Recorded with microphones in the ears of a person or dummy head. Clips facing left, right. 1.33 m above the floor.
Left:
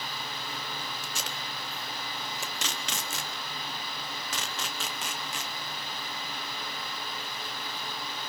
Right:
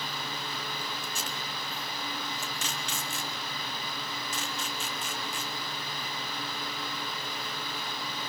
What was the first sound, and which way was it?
Tape being pulled, 55° left (ahead or behind).